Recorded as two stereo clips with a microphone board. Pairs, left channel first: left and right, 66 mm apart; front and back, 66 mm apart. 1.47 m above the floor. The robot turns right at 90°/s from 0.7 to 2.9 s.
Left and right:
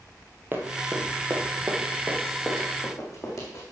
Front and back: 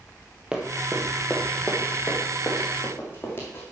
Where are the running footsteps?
115° right, 1.7 m; by 3.6 s 55° left, 3.5 m.